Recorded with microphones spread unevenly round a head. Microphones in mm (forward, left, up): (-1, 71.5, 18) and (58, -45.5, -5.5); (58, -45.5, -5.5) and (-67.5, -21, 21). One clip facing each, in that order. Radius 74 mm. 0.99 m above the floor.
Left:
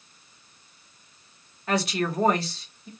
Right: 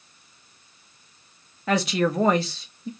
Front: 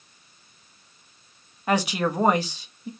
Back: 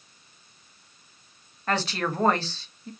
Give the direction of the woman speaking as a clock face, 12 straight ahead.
3 o'clock.